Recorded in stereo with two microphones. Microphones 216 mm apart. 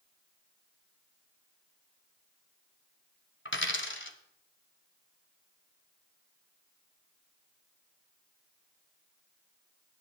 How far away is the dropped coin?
About 1.2 m.